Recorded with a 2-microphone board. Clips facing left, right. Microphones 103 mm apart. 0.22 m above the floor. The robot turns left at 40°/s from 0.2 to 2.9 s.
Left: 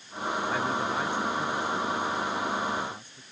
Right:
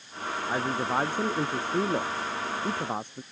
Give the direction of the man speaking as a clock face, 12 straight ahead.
1 o'clock.